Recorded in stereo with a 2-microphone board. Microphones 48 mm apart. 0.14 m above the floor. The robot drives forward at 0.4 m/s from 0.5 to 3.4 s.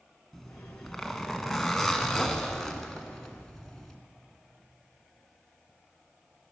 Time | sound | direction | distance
0.3 | a zipper | 5° left (ahead or behind) | 1.3 m